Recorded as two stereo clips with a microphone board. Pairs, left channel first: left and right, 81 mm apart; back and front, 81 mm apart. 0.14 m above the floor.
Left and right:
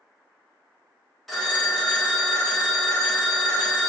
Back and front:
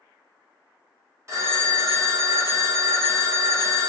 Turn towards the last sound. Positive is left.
turn(degrees=0)